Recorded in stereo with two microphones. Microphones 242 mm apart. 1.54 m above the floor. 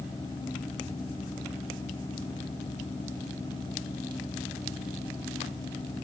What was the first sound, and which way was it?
Only background noise.